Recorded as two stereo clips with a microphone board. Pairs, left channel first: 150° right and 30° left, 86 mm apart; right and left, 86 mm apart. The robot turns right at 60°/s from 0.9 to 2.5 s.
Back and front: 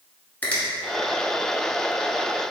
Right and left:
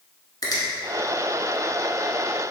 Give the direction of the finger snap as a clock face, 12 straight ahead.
3 o'clock.